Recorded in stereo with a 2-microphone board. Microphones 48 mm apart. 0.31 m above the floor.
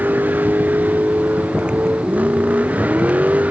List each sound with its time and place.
0.0 s a vehicle: 40° right (ahead or behind); by 3.5 s 35° right (ahead or behind)